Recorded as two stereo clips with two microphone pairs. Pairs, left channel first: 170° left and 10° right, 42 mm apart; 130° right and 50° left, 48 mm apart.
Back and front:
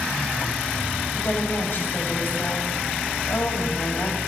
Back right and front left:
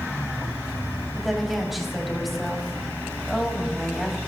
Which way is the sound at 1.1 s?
140° left.